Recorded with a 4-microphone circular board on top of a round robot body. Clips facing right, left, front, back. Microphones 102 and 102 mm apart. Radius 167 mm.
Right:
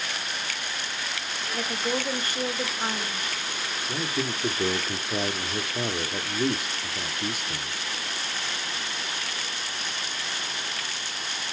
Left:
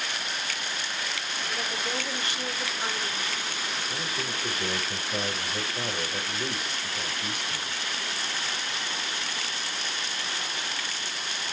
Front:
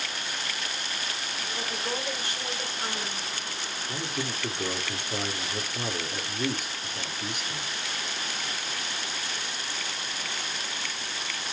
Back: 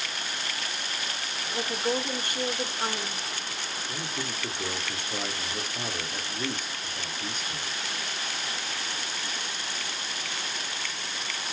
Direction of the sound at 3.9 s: 85° right.